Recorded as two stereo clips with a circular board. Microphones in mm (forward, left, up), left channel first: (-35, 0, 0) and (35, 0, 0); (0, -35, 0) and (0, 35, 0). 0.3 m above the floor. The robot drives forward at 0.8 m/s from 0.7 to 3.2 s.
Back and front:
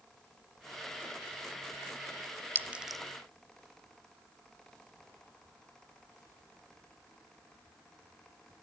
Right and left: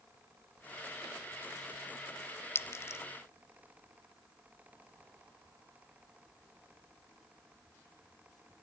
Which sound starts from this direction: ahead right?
A clink, at 2.5 s.